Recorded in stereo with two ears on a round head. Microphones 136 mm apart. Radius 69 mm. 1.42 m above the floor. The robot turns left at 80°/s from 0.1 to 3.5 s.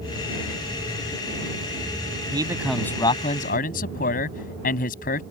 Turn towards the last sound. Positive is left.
turn(degrees=120)